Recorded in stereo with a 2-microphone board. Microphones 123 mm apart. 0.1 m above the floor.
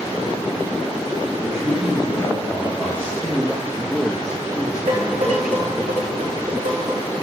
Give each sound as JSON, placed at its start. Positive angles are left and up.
{"t": 1.4, "sound": "a man speaking", "side_deg": -15, "distance_m": 7.0}
{"t": 3.2, "sound": "a man speaking", "side_deg": -5, "distance_m": 2.0}
{"t": 4.9, "sound": "dishes clattering", "side_deg": -70, "distance_m": 5.5}